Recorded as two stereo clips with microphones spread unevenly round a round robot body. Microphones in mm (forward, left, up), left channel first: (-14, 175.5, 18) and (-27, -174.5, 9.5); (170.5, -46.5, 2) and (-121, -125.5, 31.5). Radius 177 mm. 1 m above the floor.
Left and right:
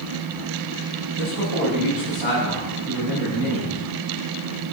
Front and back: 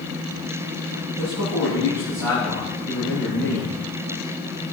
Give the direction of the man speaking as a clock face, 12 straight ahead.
7 o'clock.